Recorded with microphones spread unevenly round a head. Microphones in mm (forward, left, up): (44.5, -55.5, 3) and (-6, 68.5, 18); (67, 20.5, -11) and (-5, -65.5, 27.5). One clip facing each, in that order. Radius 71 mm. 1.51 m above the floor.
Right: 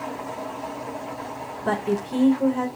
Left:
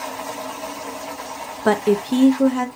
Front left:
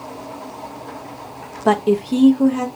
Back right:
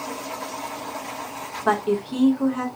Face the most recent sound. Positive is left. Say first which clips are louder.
# left 7 dB, front left 6 dB
turn(degrees=105)